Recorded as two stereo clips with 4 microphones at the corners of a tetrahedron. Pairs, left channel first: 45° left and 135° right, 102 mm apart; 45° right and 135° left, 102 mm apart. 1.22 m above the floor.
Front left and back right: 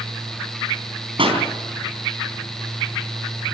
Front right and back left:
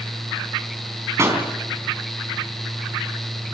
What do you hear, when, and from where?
1.2 s a pop: 165° right, 4 m